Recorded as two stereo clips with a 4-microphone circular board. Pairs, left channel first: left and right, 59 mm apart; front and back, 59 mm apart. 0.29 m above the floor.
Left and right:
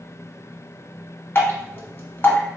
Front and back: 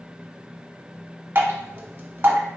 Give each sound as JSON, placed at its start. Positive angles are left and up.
{"t": 1.4, "sound": "dripping", "azimuth_deg": 135, "distance_m": 1.0}